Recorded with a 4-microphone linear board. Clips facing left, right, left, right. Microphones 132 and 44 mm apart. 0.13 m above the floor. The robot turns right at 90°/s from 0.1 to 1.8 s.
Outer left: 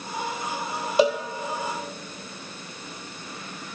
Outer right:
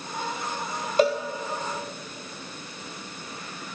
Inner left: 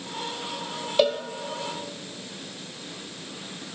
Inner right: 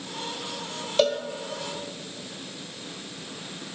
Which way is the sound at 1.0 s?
10° left (ahead or behind).